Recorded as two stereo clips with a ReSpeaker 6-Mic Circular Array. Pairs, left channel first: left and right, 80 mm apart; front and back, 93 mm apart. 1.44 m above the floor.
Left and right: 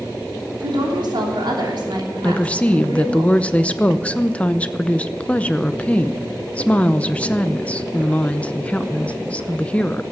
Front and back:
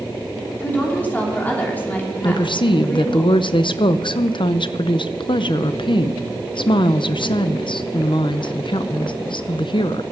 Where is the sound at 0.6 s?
70° right, 3 m.